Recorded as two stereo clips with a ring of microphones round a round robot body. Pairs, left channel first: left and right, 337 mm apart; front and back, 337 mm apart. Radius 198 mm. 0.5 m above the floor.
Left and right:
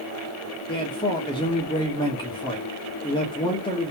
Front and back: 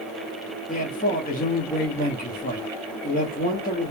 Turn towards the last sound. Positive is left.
turn(degrees=30)